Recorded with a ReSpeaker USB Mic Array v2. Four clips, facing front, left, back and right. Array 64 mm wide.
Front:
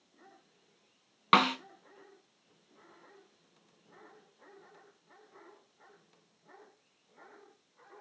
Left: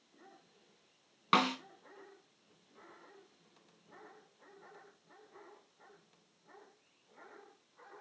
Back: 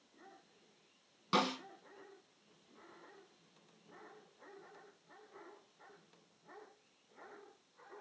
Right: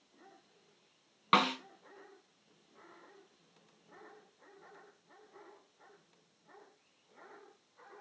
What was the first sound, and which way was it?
A snare drum, 5° right.